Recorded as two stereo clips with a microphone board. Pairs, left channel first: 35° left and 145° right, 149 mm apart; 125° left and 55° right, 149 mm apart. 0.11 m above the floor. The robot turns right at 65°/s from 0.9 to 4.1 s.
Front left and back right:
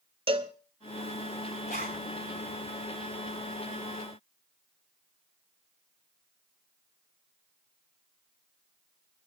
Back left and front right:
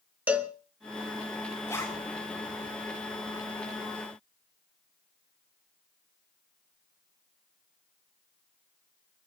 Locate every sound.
0.3 s a cowbell: 130° right, 1.0 m
1.7 s a zipper: 50° left, 5 m; by 2.0 s 75° left, 5 m